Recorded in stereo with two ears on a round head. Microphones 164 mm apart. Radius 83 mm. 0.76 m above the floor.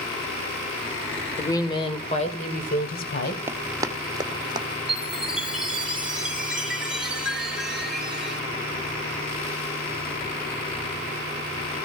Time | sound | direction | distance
1.4 | a woman speaking | 15° left (ahead or behind) | 2.5 m
3.5 | running footsteps | 15° right (ahead or behind) | 1.3 m
4.9 | a chime | 5° right (ahead or behind) | 2.5 m